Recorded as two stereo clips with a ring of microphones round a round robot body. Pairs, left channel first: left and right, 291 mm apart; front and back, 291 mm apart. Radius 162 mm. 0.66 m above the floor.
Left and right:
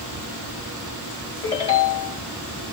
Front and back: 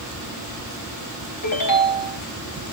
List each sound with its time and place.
1.4 s a ringtone: 15° left, 3 m